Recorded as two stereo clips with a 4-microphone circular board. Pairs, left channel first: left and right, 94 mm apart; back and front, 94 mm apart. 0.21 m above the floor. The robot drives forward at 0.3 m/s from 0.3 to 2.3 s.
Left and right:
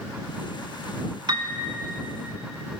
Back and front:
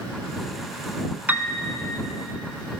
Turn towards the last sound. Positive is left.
turn(degrees=-90)